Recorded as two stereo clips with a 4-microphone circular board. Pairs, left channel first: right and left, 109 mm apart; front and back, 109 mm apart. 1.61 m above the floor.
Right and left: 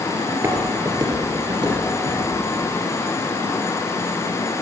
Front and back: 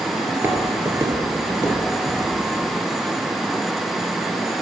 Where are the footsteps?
130° left, 1.6 m.